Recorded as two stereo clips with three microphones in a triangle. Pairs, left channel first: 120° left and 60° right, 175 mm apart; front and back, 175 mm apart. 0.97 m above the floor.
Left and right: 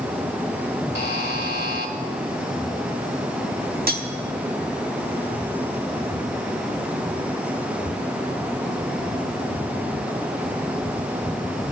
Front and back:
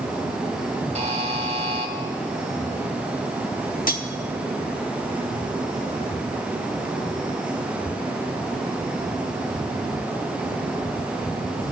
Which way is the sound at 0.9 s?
130° left.